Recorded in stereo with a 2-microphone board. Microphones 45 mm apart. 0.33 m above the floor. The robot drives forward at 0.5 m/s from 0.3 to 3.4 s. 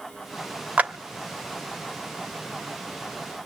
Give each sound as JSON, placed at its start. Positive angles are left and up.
{"t": 0.8, "sound": "a clap", "side_deg": -30, "distance_m": 1.0}